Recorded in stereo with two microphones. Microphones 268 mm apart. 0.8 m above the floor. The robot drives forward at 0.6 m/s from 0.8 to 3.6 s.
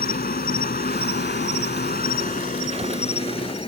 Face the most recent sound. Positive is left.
turn(degrees=20)  # may be behind; listen again after turning